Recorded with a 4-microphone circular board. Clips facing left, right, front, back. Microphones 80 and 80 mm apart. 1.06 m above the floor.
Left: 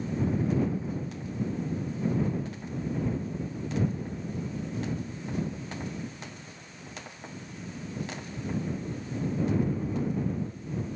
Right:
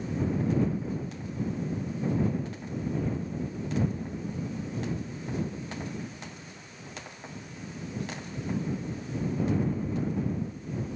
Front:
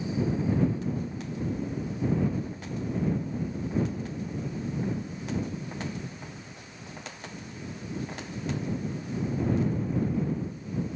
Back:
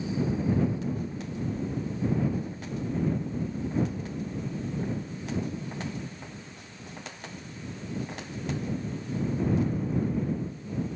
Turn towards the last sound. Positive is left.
No sound to turn to.